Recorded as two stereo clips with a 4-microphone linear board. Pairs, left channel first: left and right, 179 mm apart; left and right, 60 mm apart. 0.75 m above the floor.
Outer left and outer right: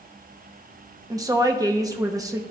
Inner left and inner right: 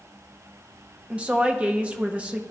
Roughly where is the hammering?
No hammering in this recording.